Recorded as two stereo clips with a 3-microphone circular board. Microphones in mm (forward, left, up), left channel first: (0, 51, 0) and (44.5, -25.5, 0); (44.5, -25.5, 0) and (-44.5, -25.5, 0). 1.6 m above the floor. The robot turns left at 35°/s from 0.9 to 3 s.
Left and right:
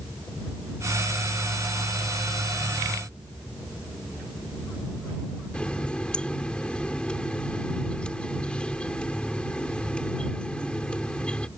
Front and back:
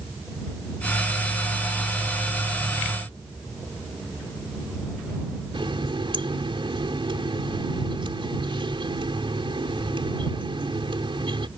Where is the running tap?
160° right.